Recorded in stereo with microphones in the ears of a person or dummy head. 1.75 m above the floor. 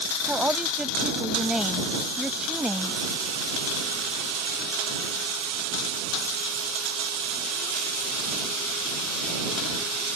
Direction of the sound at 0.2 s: 15° right (ahead or behind).